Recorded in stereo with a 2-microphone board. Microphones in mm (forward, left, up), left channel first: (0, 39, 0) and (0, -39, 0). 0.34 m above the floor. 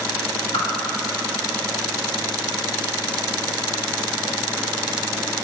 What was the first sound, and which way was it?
A whoosh, 65° left (ahead or behind).